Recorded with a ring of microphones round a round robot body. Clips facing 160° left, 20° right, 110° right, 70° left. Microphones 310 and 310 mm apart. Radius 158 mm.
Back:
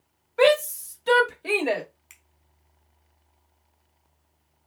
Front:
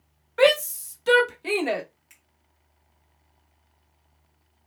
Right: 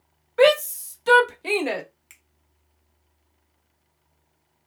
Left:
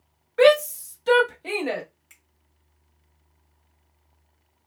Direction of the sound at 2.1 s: 155° right.